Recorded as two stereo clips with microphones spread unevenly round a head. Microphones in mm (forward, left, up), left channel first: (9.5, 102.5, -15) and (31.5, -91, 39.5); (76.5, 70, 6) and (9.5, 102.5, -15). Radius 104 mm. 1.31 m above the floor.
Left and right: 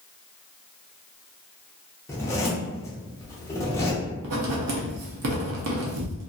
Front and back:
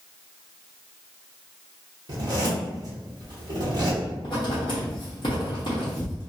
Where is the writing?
80° right, 0.7 m.